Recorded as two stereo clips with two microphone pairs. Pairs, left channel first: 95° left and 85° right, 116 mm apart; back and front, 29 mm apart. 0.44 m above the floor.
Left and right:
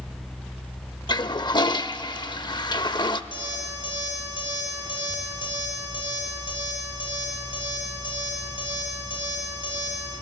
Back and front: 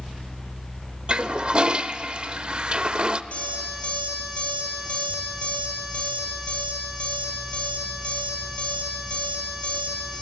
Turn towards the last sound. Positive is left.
turn(degrees=140)